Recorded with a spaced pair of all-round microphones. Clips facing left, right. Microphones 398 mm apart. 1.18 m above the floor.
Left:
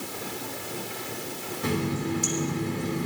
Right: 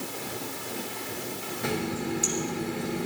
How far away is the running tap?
About 4 m.